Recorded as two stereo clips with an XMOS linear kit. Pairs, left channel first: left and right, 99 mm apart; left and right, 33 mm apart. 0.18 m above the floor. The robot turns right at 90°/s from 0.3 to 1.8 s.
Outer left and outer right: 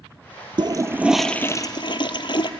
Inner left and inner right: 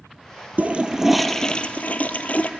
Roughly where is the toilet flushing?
Ahead right.